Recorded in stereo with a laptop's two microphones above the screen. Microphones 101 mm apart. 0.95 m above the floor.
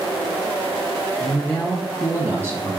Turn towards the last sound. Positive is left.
turn(degrees=-30)  # may be behind; listen again after turning